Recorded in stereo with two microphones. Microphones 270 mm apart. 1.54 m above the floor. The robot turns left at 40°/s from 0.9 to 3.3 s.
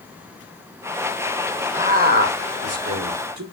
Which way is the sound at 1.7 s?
20° right (ahead or behind).